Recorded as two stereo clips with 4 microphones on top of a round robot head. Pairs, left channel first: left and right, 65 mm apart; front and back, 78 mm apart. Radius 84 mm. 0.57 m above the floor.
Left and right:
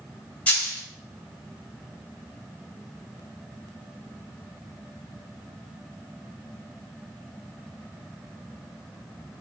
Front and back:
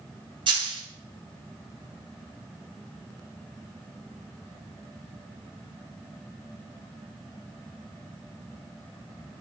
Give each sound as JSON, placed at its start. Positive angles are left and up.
{"t": 0.5, "sound": "a dropped coin", "azimuth_deg": 160, "distance_m": 1.3}